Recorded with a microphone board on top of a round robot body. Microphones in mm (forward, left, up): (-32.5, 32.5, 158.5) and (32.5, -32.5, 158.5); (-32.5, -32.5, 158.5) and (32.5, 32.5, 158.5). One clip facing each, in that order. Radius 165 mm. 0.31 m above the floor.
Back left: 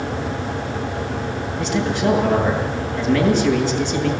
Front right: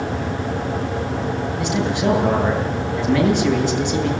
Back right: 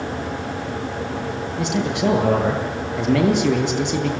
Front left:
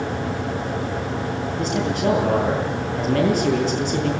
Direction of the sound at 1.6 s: 120° right.